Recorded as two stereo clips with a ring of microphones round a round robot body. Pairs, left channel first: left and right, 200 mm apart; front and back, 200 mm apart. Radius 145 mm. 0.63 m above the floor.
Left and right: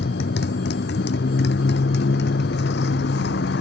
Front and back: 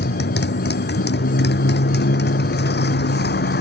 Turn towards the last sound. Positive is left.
turn(degrees=35)